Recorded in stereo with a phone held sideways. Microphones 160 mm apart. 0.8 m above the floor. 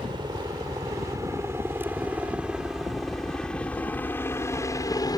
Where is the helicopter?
30° right (ahead or behind); by 5.2 s 25° left (ahead or behind).